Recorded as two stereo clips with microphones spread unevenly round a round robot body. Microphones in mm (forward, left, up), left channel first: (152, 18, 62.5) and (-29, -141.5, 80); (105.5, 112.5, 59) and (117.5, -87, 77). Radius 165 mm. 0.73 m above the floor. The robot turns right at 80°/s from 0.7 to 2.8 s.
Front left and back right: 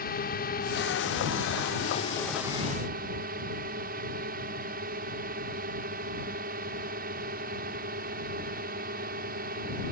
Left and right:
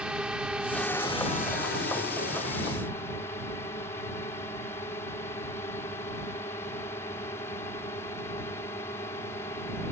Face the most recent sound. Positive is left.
turn(degrees=165)